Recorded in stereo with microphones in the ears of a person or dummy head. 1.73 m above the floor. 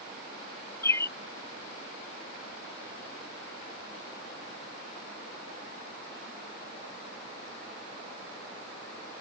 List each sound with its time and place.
0.8 s a bird: 15° left (ahead or behind)